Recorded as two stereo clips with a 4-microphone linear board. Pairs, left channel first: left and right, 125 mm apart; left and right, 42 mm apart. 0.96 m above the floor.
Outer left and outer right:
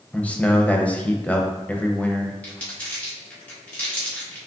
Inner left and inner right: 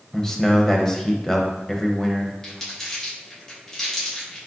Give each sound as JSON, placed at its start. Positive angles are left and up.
{"t": 0.1, "sound": "a man speaking", "side_deg": 10, "distance_m": 0.5}
{"t": 2.4, "sound": "crumpling", "side_deg": 10, "distance_m": 1.4}